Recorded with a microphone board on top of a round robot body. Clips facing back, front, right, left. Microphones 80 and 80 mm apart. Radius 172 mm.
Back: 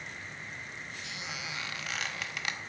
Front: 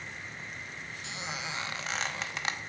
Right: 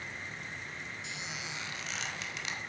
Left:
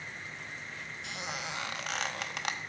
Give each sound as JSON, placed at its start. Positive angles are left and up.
{"t": 1.0, "sound": "a squeak", "azimuth_deg": 60, "distance_m": 0.9}